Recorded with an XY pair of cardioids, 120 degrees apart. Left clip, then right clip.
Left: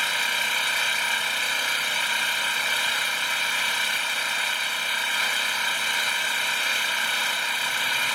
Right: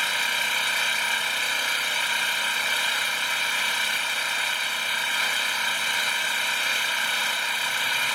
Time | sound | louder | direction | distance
0.0 | an engine running | even | straight ahead | ?